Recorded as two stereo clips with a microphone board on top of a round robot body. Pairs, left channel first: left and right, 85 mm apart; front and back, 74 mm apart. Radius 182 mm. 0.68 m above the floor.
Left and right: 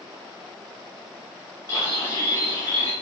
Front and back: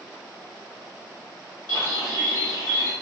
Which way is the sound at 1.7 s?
30° left.